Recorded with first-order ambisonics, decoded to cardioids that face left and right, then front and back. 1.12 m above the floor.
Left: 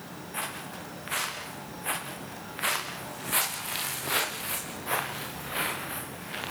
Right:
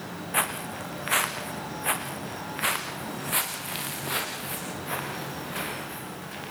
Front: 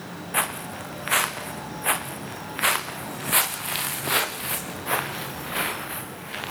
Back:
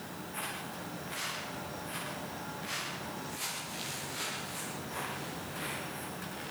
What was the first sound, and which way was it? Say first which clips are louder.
Footsteps: right 8 dB, front 13 dB; 35° right.